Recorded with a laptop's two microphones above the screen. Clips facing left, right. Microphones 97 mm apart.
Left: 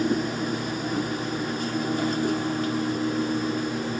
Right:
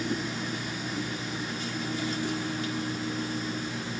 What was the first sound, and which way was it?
A machine running, 45° left (ahead or behind).